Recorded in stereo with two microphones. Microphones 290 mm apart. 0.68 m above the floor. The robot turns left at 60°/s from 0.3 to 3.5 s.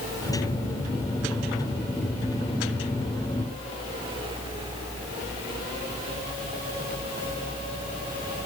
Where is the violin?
I don't hear a violin.